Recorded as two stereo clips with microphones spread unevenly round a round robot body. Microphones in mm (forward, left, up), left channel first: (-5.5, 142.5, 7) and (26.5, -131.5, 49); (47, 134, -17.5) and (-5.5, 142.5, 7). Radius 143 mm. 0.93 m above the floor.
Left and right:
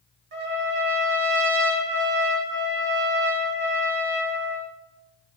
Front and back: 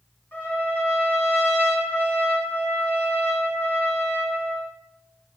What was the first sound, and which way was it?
A trumpet, 100° right.